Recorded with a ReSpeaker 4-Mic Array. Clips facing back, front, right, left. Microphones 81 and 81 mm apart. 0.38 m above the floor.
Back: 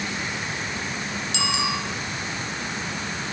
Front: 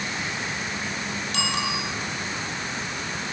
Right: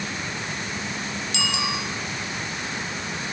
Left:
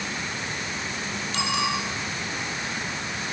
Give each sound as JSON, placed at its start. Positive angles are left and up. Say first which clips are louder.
{"t": 1.3, "sound": "a bicycle bell", "louder": "back 2 dB, left 3 dB", "azimuth_deg": 40, "distance_m": 7.5}